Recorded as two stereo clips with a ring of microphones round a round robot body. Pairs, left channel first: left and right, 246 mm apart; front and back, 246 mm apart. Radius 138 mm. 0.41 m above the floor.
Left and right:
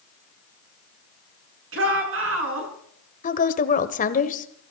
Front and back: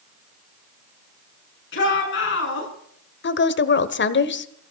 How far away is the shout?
About 6.5 m.